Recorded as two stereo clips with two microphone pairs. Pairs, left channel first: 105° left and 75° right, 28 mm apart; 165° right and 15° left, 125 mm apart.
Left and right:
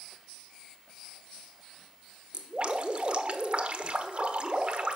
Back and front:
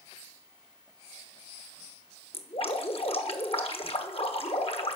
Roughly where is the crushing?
I don't hear crushing.